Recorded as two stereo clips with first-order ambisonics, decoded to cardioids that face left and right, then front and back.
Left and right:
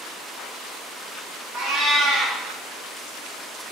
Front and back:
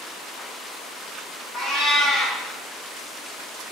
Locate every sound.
1.5 s a cat meowing: 75° right, 1.7 m